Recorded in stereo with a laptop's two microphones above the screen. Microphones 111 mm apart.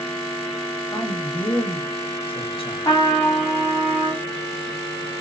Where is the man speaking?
50° left (ahead or behind), 0.9 m.